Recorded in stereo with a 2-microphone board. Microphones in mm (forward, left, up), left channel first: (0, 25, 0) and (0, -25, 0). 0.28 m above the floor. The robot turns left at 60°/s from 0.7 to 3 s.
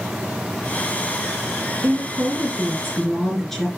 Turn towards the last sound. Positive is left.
turn(degrees=175)